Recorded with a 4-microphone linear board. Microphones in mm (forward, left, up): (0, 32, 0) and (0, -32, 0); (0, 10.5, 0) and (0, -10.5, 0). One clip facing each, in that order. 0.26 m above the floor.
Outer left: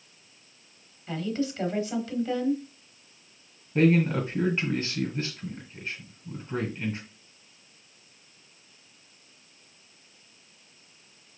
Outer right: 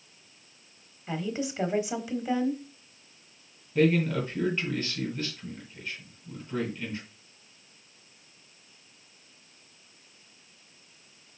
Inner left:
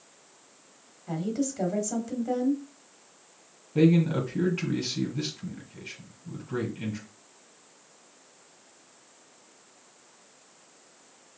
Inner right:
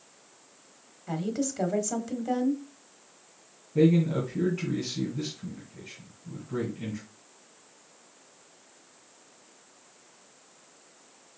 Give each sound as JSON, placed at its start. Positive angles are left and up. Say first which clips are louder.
{"t": 1.1, "sound": "a woman speaking", "louder": "outer left 2 dB, inner left 1 dB", "side_deg": -15, "distance_m": 1.0}
{"t": 3.8, "sound": "a man speaking", "louder": "outer left 2 dB, inner left 1 dB", "side_deg": 30, "distance_m": 2.5}